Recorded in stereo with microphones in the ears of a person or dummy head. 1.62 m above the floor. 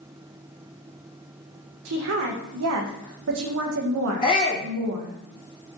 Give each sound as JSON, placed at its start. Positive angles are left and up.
{"t": 1.9, "sound": "a woman speaking", "side_deg": -75, "distance_m": 0.9}
{"t": 4.2, "sound": "a shout", "side_deg": 25, "distance_m": 1.9}